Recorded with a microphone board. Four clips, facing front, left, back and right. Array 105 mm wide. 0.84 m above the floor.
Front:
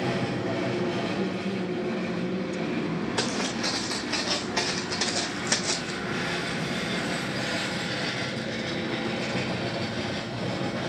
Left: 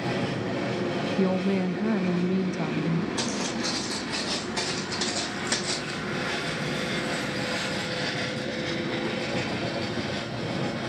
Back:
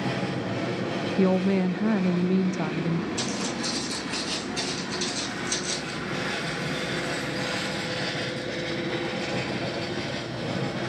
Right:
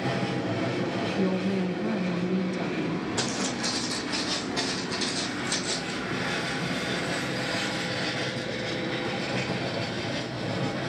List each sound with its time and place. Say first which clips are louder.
1.2 s a woman speaking: left 3 dB, back 7 dB; 160° left, 0.7 m
3.2 s footsteps: even, front 1 dB; 10° right, 4 m; by 5.9 s 30° left, 3.5 m